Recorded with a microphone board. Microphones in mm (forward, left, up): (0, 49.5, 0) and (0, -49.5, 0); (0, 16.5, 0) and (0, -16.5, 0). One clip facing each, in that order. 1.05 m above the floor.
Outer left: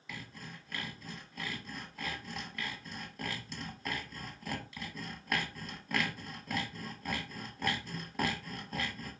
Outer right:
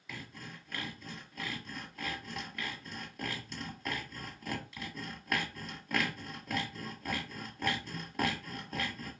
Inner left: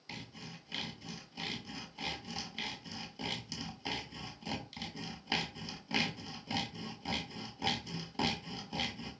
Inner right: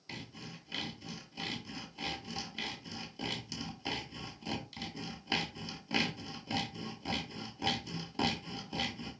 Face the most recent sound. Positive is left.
turn(degrees=0)  # may be behind; listen again after turning